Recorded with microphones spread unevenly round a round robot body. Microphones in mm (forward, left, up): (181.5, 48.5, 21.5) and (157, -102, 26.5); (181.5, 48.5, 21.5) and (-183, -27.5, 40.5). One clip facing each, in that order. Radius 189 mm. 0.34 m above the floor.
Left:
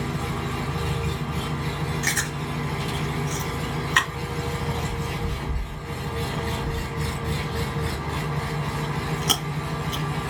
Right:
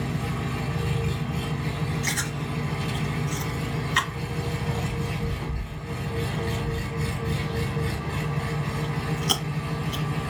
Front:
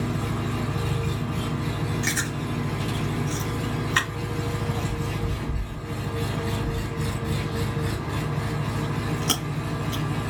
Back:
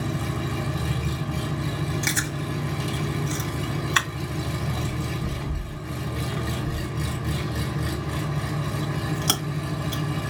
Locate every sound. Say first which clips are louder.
0.0 s an engine running: left 1 dB, front 1 dB; 145° left, 2.5 m
2.0 s chewing: left 1 dB, front 1 dB; 130° left, 1.8 m